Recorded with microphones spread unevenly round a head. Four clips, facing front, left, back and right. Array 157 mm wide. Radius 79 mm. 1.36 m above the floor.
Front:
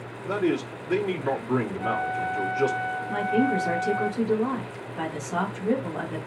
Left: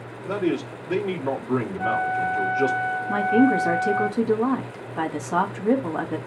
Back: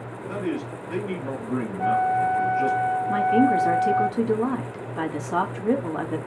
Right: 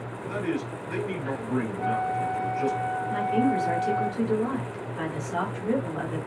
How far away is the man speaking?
About 3 m.